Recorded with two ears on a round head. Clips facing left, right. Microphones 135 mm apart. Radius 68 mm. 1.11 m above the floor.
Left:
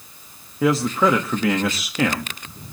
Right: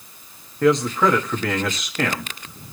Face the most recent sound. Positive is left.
turn(degrees=5)  # may be behind; listen again after turning